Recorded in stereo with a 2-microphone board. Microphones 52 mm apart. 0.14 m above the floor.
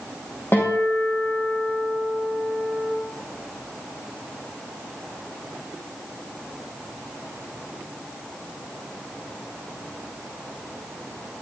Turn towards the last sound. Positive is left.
turn(degrees=45)  # may be behind; listen again after turning